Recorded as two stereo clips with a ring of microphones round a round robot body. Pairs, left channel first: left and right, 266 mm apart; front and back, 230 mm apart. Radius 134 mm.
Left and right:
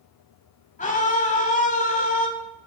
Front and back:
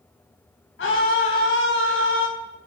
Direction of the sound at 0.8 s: 30° left.